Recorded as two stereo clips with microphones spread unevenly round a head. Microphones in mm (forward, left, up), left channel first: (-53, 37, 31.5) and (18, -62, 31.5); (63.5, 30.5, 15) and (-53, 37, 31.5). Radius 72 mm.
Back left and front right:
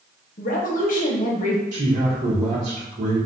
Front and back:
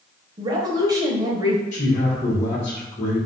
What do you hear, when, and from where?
0.4 s a woman speaking: 130° left, 0.9 m
1.7 s a man speaking: 35° right, 1.8 m